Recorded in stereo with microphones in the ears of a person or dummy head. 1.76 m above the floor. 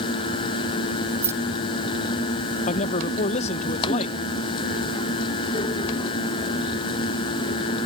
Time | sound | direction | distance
1.2 | keys jangling | 15° right (ahead or behind) | ?
2.7 | a man speaking | 40° left (ahead or behind) | ?